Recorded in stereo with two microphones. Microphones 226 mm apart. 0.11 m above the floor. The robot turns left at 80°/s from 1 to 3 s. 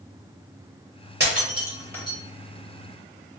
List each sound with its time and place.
1.2 s breaking glass: 50° right (ahead or behind), 1.4 m; by 2.2 s 30° left (ahead or behind), 1.4 m